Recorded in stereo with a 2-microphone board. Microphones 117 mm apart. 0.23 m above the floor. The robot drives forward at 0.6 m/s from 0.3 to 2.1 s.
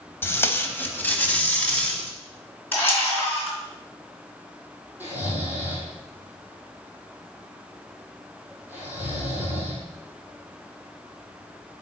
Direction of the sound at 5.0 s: 15° right (ahead or behind).